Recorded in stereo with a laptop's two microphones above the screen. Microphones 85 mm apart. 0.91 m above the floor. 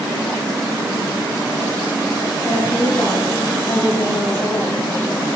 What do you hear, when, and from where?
2.4 s a woman speaking: 40° left (ahead or behind), 4.5 m